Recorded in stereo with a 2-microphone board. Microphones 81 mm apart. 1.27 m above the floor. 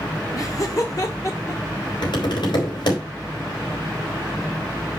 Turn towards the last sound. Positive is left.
turn(degrees=65)  # may be behind; listen again after turning